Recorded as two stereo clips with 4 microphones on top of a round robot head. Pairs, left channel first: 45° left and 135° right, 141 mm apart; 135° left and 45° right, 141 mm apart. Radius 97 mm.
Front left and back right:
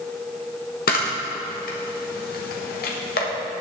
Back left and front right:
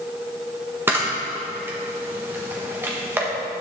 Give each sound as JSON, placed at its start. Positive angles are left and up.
{"t": 0.9, "sound": "a camera shutter", "azimuth_deg": 30, "distance_m": 1.3}